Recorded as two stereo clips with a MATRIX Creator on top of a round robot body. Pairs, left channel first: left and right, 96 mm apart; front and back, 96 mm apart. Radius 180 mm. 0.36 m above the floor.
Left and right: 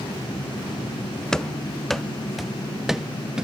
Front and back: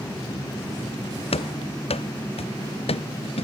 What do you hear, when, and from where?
1.3 s running footsteps: 5° left; by 3.5 s 5° right